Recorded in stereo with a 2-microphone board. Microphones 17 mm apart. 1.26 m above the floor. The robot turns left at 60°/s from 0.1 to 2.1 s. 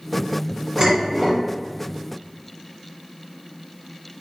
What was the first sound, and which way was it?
Dishes clattering, 125° right.